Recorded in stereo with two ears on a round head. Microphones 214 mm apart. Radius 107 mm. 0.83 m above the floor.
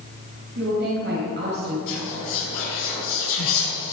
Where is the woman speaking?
45° right (ahead or behind), 4.5 m.